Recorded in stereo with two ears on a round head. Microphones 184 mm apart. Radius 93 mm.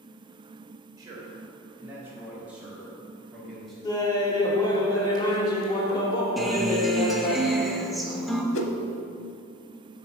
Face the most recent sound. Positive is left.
turn(degrees=65)  # may be behind; listen again after turning